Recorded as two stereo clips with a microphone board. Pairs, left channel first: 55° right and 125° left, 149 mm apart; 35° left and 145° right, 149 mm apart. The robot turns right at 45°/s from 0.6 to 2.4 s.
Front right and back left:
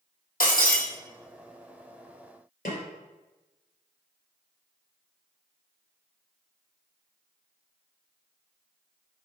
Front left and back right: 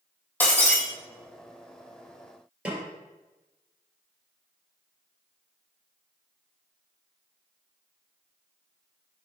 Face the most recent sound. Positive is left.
turn(degrees=-65)